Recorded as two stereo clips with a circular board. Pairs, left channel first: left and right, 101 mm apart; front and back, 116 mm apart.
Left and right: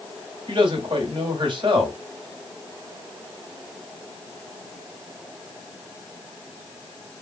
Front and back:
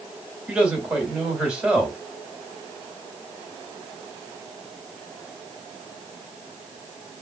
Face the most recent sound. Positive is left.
turn(degrees=-100)